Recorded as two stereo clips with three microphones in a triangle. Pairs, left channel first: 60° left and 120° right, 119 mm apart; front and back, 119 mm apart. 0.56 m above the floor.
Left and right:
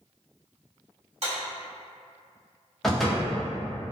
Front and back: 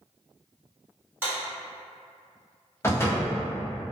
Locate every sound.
1.2 s a clap: 110° right, 1.6 m
2.8 s a door slam: 25° right, 0.6 m